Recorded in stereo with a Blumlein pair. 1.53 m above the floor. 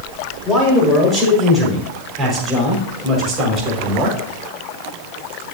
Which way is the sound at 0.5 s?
5° left.